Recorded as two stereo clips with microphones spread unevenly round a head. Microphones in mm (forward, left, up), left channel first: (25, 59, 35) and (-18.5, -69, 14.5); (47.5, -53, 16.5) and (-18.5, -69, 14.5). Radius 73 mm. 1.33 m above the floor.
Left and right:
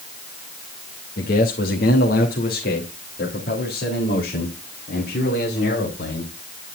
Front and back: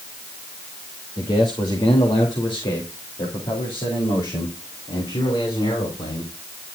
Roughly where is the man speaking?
Ahead left.